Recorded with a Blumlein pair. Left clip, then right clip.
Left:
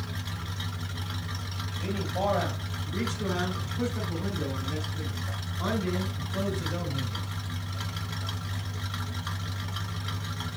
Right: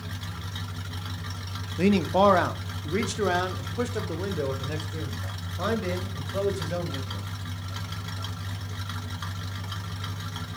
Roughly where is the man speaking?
Ahead right.